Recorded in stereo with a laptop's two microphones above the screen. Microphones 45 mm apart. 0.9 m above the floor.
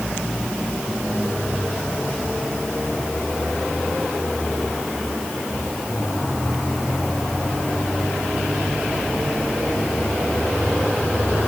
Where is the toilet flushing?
I don't hear a toilet flushing.